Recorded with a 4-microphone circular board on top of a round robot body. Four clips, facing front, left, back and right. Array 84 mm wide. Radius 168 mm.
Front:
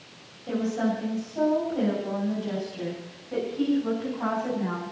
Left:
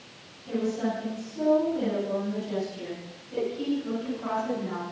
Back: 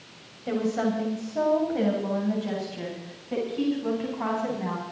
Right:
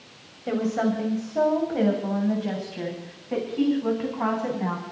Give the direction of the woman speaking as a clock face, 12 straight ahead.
4 o'clock.